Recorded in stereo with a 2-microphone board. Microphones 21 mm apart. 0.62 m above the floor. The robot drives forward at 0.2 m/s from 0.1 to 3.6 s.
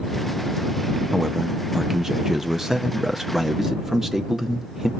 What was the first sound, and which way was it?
A man speaking, 25° right (ahead or behind).